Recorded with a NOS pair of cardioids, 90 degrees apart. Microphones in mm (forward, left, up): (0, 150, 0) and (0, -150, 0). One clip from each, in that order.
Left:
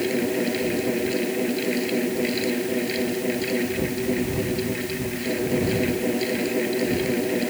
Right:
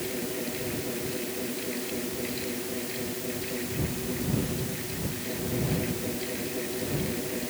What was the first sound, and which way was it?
A fan, 65° left.